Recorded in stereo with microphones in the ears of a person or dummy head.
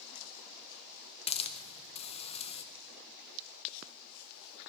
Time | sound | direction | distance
1.3 | a hiss | 30° left (ahead or behind) | 0.7 m